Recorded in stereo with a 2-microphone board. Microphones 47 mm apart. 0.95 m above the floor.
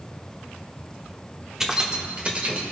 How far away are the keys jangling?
About 1.3 m.